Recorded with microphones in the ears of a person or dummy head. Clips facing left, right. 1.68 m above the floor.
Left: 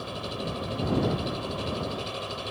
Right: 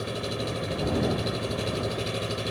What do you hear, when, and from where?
0.0 s an engine running: 20° right (ahead or behind)